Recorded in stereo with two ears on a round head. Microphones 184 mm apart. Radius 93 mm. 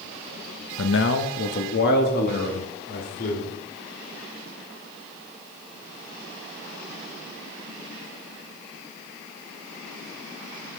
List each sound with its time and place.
0.8 s a man speaking: 75° left (ahead or behind), 0.9 m; by 3.5 s 50° left (ahead or behind), 3.5 m